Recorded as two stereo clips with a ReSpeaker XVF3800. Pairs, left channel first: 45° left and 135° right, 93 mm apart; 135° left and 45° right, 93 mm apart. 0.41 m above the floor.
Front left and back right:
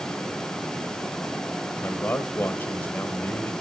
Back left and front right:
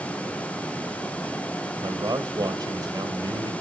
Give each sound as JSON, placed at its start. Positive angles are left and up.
{"t": 1.8, "sound": "a man speaking", "azimuth_deg": -20, "distance_m": 1.8}